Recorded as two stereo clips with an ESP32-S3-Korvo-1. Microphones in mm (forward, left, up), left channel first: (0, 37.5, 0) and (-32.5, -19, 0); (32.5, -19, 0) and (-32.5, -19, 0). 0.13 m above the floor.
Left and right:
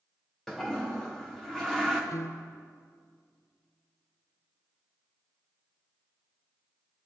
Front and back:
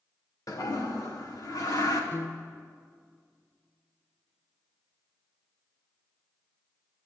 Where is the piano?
45° left, 0.7 m.